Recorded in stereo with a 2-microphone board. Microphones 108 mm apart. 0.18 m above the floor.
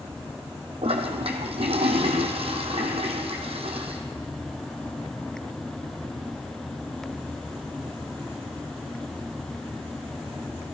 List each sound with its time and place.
0.8 s a toilet flushing: 65° right (ahead or behind), 1.5 m